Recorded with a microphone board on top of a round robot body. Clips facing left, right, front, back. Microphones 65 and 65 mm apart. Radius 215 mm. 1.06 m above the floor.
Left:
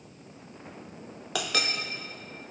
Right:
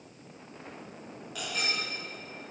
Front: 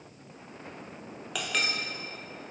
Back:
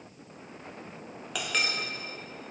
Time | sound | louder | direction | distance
1.4 | a clink | left 5 dB, even | 90° left | 0.7 m